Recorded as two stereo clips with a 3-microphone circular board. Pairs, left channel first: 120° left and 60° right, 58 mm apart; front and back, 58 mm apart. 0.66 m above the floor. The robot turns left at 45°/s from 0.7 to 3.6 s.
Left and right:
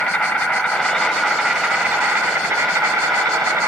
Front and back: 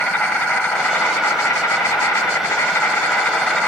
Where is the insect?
55° left, 2.0 m; by 3.7 s 80° right, 2.0 m.